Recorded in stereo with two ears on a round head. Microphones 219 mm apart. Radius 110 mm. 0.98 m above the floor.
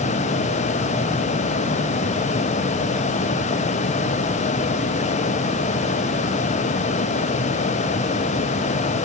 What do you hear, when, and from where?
Only background noise.